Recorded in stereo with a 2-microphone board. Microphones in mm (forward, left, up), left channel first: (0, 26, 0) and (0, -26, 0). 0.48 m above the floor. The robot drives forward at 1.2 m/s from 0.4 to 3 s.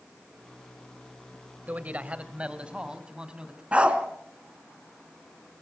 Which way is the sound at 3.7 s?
25° right (ahead or behind).